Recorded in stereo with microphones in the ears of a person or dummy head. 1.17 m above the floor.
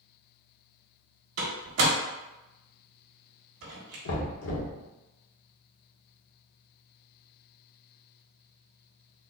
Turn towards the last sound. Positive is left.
turn(degrees=80)